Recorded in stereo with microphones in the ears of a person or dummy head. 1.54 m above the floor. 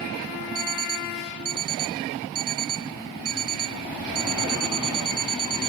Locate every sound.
0.6 s an alarm clock: 20° right (ahead or behind)